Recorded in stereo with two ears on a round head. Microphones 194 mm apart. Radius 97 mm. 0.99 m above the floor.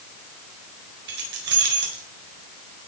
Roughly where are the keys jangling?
Right.